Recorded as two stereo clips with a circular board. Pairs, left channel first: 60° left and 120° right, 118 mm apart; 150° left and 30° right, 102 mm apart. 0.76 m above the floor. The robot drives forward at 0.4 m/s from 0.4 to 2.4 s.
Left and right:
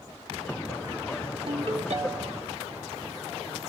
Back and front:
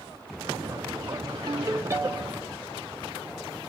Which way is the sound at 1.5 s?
85° right.